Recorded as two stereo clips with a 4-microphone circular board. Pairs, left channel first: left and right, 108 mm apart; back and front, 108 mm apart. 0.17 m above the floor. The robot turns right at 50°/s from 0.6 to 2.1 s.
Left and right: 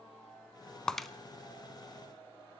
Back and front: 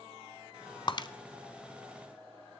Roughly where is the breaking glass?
Behind.